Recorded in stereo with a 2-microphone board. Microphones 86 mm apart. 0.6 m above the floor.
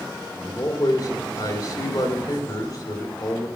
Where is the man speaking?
50° left (ahead or behind), 2 m.